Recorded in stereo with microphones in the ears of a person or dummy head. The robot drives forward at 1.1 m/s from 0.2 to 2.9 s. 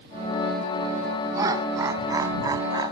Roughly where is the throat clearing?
I don't hear throat clearing.